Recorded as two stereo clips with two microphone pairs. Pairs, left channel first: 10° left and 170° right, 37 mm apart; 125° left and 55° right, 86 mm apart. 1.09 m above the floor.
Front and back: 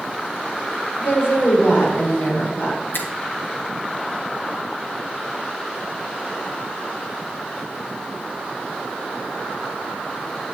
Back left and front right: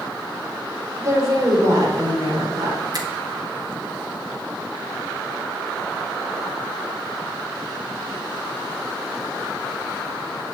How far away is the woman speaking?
About 3.5 m.